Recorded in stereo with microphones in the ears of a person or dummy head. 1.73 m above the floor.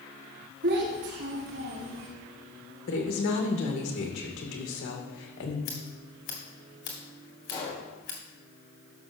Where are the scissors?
40° left (ahead or behind), 1.9 m.